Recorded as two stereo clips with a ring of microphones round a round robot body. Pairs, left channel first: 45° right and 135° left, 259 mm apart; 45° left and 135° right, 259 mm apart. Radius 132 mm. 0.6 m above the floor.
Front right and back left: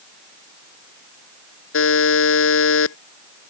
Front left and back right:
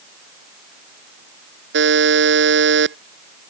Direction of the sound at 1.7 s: 85° right.